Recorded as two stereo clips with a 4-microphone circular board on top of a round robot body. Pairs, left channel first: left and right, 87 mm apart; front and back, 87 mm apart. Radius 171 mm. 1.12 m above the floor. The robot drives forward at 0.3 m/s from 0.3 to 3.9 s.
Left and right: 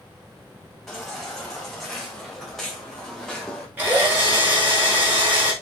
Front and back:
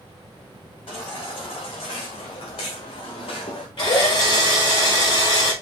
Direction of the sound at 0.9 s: Straight ahead.